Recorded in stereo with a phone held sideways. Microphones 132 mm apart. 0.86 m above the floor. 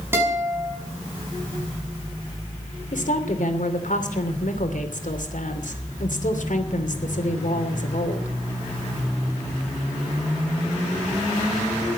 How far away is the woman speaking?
About 2.5 m.